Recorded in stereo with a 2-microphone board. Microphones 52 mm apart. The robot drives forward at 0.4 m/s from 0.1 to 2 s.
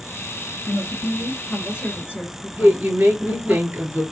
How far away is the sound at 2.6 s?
About 2 m.